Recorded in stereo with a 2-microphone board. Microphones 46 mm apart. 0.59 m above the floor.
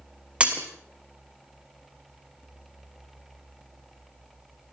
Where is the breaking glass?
25° right (ahead or behind), 3 m.